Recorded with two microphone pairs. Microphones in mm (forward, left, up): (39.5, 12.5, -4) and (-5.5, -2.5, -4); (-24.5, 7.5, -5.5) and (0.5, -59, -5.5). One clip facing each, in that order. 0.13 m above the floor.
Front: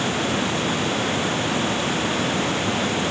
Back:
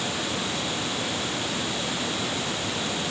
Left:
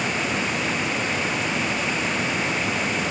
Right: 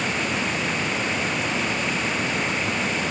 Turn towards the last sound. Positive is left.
No sound to turn to.